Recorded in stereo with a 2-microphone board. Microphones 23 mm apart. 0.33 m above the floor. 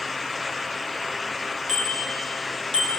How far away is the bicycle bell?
About 5 m.